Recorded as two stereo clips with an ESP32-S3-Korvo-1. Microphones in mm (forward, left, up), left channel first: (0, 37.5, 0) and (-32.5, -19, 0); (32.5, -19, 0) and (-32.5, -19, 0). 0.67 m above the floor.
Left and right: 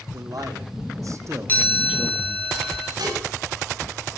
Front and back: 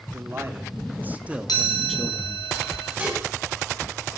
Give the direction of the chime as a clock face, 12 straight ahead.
12 o'clock.